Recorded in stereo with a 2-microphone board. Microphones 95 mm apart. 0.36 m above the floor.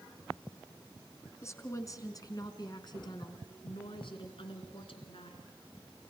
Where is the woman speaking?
30° left (ahead or behind), 4 m; by 5.5 s 75° left (ahead or behind), 4.5 m.